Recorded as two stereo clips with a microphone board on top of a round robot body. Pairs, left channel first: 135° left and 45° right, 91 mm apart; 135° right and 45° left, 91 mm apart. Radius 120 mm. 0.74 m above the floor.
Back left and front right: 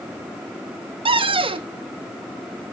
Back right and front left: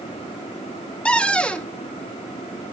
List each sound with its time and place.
1.1 s a cupboard door: 55° right, 1.0 m